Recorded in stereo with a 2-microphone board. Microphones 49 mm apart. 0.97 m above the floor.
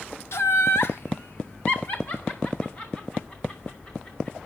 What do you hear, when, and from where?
0.3 s laughter: 70° left (ahead or behind), 1.3 m; by 4.4 s 25° left (ahead or behind), 3.5 m